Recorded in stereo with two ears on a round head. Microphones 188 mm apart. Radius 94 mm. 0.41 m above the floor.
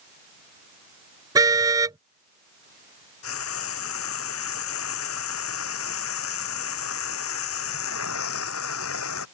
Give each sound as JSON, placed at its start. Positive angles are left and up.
{"t": 1.4, "sound": "a car horn", "side_deg": -15}
{"t": 3.2, "sound": "frying", "side_deg": 70}